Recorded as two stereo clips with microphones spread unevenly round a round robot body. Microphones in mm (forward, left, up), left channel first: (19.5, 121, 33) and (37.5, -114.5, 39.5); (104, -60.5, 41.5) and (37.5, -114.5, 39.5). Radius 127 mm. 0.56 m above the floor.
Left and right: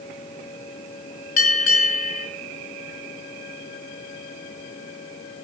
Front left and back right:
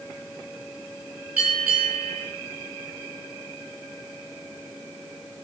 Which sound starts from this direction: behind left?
A bell, at 1.4 s.